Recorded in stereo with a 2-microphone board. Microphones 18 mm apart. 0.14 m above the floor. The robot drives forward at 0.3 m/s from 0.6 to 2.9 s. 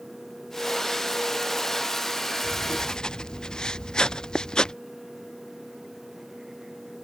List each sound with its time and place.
2.4 s writing: 45° left (ahead or behind)